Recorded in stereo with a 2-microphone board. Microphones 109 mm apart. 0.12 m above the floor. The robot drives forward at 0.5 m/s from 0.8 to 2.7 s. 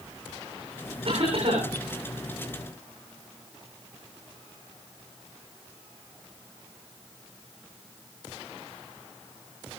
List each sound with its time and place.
1.1 s a cough: 55° right (ahead or behind), 10 m